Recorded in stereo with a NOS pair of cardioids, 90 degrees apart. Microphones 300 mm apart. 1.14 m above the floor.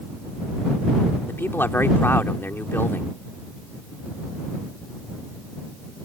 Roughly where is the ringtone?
No ringtone in this recording.